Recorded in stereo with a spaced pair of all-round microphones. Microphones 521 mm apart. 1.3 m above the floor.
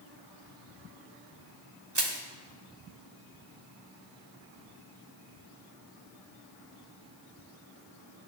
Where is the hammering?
I don't hear hammering.